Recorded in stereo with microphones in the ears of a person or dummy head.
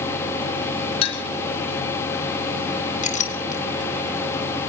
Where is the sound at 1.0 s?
40° left (ahead or behind), 1.5 m.